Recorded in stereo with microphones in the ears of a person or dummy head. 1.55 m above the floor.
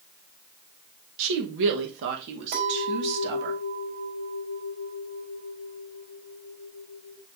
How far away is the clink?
About 5.5 m.